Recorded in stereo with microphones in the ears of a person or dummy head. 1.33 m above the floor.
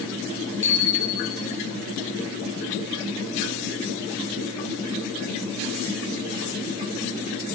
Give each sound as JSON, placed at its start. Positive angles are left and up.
{"t": 0.6, "sound": "a bicycle bell", "side_deg": -30, "distance_m": 7.0}